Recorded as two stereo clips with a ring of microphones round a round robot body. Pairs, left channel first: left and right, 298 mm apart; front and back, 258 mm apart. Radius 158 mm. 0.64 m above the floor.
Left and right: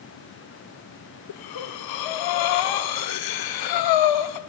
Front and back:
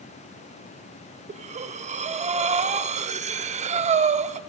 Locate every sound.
1.3 s breathing: 110° left, 0.5 m